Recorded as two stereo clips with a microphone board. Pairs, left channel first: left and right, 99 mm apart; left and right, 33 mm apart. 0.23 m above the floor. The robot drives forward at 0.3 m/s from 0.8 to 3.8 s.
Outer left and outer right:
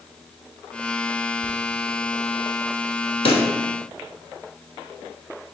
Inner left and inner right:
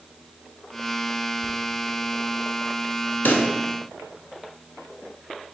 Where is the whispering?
20° right (ahead or behind), 1.1 m.